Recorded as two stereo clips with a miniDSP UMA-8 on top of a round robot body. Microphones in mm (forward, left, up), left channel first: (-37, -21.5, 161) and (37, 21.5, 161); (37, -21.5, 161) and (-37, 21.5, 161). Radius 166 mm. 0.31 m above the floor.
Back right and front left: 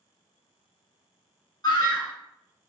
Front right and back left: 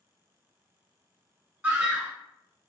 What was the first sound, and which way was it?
A scream, 145° right.